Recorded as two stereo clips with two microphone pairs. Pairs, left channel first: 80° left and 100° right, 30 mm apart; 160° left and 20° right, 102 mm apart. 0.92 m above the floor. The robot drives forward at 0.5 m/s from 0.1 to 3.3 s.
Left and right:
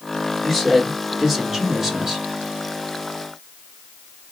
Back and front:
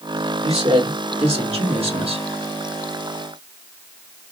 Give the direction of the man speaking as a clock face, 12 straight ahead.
1 o'clock.